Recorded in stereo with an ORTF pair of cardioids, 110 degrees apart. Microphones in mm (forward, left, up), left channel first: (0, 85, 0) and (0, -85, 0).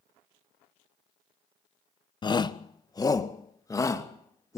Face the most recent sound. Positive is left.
turn(degrees=20)